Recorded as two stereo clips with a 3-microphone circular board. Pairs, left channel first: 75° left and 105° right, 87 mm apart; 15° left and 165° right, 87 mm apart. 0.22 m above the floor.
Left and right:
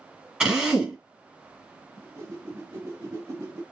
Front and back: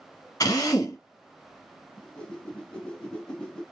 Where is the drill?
25° right, 1.8 m.